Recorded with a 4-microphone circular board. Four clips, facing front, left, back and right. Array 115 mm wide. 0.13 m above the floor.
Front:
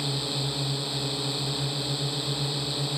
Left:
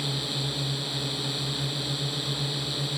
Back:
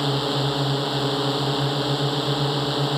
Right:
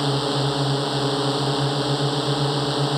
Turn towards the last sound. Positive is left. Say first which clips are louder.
# right 11 dB, back 9 dB
turn(degrees=-125)